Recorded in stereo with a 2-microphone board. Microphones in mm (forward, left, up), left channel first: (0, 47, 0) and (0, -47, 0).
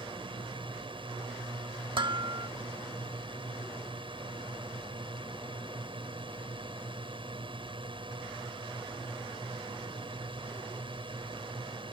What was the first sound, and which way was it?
A drone, 60° right (ahead or behind).